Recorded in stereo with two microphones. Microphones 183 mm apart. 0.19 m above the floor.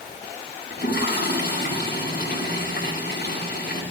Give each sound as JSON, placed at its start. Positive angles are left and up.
{"t": 0.7, "sound": "a toilet flushing", "side_deg": 55, "distance_m": 8.0}